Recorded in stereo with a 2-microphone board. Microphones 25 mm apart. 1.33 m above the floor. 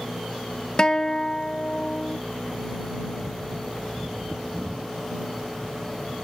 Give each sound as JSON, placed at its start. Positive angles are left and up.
{"t": 0.8, "sound": "a guitar", "side_deg": 30}